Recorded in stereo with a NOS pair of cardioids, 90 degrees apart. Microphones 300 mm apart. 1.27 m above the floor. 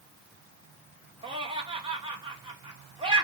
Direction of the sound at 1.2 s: 15° right.